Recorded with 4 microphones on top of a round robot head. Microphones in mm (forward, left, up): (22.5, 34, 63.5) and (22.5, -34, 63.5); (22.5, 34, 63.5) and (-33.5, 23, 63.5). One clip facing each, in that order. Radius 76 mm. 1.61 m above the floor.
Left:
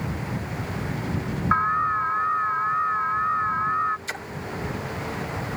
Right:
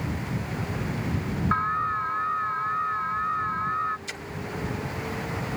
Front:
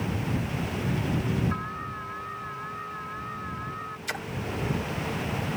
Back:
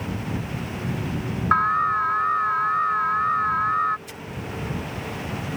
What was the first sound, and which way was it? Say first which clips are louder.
An alarm: left 4 dB, back 15 dB; 165° left.